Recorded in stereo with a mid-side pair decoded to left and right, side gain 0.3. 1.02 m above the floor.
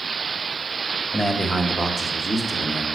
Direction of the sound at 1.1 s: 10° right.